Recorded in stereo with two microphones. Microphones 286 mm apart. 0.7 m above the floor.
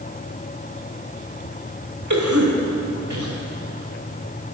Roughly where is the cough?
Right.